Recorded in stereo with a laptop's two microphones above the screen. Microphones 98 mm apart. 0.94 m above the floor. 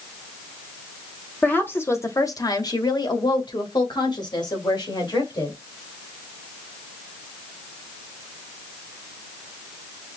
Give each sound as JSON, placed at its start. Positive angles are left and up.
{"t": 1.4, "sound": "a woman speaking", "side_deg": 15, "distance_m": 1.0}